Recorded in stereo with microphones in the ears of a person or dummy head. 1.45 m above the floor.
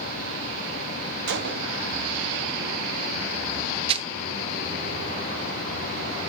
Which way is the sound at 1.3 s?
55° right (ahead or behind).